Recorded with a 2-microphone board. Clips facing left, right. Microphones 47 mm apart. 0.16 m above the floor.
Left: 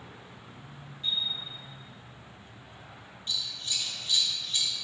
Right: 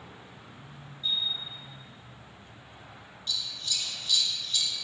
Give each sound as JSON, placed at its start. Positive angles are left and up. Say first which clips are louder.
{"t": 1.0, "sound": "a chime", "louder": "right 1 dB", "side_deg": 70, "distance_m": 1.4}
{"t": 3.3, "sound": "scissors", "louder": "even", "side_deg": 30, "distance_m": 0.7}